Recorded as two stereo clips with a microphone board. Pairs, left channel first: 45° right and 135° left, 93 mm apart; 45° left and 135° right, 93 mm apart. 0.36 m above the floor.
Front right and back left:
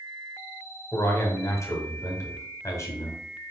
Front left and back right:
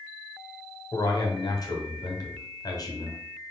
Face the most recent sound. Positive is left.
turn(degrees=10)